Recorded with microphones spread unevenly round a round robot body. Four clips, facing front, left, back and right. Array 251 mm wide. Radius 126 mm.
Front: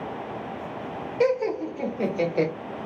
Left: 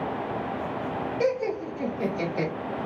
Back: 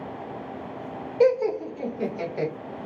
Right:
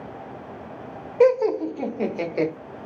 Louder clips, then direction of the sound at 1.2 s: Right 10 dB, back 3 dB; 85° right.